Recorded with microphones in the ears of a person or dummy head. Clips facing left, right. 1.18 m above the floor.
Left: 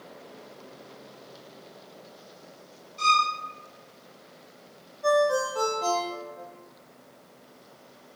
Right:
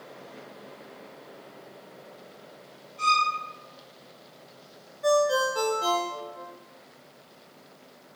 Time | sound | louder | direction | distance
3.0 | a violin | left 1 dB | 65° left (ahead or behind) | 1.7 m
5.0 | a ringtone | even | 10° right (ahead or behind) | 0.5 m